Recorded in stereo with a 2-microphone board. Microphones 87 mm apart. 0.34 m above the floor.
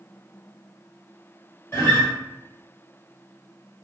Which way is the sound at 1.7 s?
30° left (ahead or behind).